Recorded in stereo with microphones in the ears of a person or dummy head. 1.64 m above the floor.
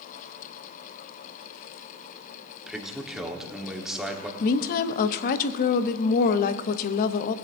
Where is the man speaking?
Centre (ahead or behind), 1.2 m.